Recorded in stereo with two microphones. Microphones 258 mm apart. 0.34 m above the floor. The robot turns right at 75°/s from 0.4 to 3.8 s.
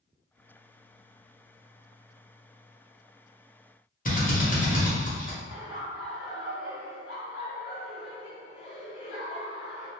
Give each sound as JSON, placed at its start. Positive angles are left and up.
{"t": 4.0, "sound": "a drill", "side_deg": 30, "distance_m": 0.9}
{"t": 5.5, "sound": "laughter", "side_deg": 40, "distance_m": 1.8}